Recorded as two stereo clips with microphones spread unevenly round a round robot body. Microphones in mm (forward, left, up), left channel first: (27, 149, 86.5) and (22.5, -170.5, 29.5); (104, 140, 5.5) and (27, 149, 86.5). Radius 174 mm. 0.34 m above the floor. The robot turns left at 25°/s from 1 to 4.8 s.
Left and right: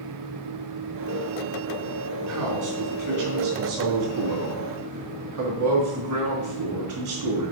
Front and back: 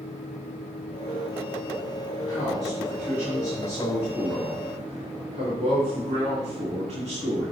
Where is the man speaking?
65° right, 3 m; by 7.5 s 130° right, 3 m.